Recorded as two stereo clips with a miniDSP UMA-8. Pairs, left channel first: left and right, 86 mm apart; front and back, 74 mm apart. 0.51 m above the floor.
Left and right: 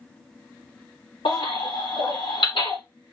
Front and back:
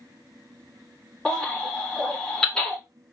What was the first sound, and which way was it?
A baby crying, 80° left.